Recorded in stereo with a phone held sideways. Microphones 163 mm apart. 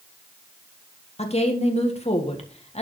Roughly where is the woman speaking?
Left.